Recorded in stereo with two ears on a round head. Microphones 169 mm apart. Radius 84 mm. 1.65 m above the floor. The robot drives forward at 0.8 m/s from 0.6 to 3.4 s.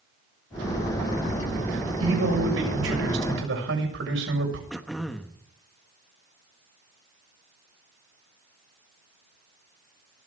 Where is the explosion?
I don't hear an explosion.